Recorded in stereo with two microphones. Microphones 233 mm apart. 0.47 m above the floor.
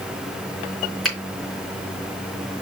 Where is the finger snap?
Centre (ahead or behind), 5 m.